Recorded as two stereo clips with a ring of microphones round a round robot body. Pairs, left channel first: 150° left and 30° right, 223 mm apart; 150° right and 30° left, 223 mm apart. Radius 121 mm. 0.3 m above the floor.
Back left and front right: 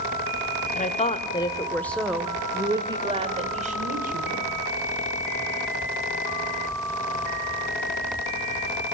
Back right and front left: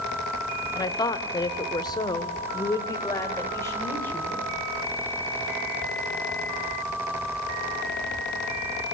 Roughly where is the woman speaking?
Behind left.